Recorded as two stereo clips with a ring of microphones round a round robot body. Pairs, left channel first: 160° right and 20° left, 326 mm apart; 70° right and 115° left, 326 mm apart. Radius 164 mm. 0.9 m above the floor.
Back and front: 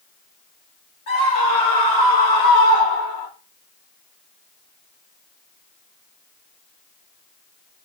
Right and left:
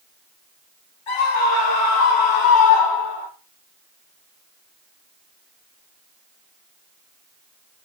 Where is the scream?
90° right, 3.5 m; by 3.3 s 100° right, 2 m.